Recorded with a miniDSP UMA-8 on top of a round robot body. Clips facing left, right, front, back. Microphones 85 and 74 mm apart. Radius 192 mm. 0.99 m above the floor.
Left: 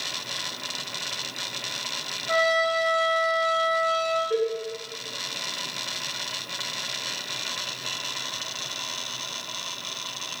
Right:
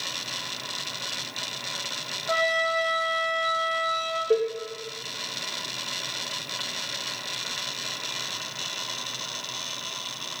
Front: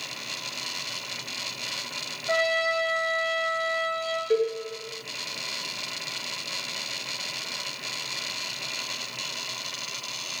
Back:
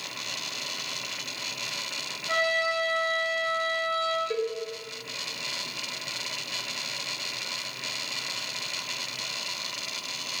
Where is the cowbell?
75° right, 0.8 m.